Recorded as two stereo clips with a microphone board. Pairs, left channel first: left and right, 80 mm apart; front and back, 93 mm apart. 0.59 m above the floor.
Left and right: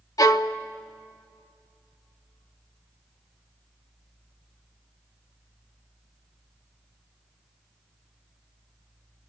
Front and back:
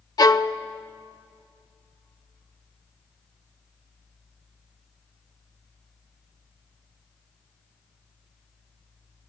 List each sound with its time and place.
0.2 s a violin: 45° left, 0.7 m